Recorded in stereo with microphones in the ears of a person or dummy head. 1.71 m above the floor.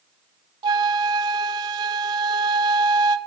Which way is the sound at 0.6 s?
20° right (ahead or behind).